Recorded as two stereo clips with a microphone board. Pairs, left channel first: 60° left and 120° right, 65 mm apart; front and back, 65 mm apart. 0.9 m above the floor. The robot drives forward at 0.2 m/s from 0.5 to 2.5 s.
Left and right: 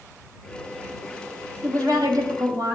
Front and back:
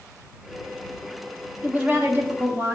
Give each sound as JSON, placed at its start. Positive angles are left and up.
{"t": 1.6, "sound": "a woman speaking", "azimuth_deg": -120, "distance_m": 1.3}